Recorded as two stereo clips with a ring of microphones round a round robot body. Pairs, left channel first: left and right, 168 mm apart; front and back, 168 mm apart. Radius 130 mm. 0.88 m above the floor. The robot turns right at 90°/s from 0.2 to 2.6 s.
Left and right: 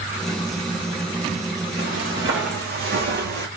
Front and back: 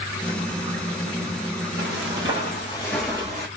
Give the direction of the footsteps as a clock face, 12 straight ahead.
5 o'clock.